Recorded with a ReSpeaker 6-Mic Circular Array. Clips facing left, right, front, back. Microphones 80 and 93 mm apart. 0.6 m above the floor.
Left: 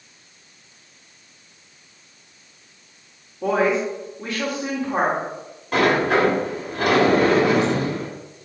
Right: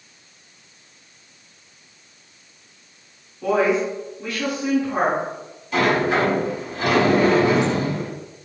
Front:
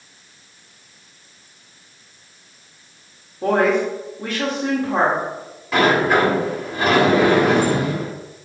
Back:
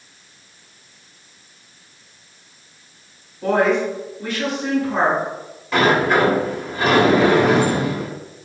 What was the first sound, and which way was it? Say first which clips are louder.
A woman speaking: right 1 dB, even; 35° left.